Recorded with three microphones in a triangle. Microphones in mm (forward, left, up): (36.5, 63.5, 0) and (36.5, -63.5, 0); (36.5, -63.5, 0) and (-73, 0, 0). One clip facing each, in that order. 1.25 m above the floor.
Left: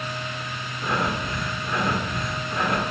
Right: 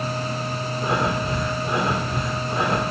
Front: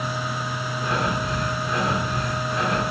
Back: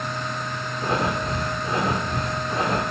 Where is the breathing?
155° right, 1.6 m.